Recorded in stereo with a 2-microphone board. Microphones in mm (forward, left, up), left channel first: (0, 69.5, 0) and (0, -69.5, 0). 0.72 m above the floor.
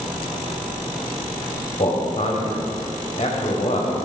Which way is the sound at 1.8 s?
50° left (ahead or behind).